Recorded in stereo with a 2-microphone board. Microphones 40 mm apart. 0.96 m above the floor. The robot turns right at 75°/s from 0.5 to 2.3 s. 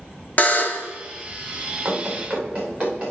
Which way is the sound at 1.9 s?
65° right (ahead or behind).